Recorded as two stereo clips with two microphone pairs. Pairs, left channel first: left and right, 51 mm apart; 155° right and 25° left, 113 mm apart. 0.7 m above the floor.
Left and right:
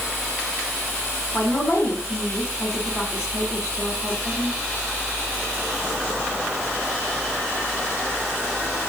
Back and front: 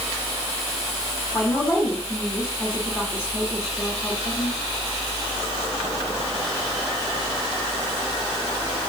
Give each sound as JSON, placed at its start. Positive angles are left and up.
{"t": 1.3, "sound": "a woman speaking", "azimuth_deg": 135, "distance_m": 5.5}